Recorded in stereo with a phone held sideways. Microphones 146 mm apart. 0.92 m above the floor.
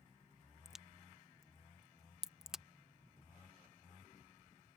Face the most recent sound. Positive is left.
turn(degrees=-5)  # may be behind; listen again after turning